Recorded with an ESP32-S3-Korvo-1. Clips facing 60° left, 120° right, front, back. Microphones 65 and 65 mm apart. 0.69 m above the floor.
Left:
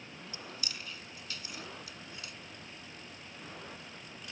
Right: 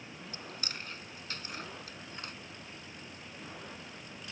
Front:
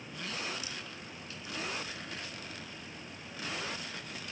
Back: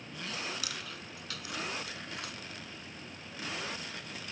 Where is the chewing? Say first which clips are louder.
Right 2 dB, back 1 dB; 170° right.